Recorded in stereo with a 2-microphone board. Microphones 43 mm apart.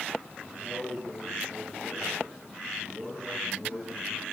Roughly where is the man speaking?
Centre.